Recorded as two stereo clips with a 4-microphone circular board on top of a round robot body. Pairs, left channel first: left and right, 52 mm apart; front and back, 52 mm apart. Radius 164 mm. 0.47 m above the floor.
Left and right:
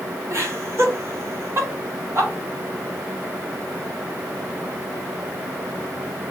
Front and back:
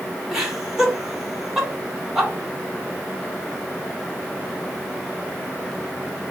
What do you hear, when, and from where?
0.3 s laughter: 100° right, 1.6 m